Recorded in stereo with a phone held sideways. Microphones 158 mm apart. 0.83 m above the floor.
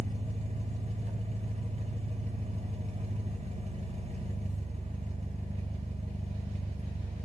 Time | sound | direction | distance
0.0 | an engine running | 45° right (ahead or behind) | 2.5 m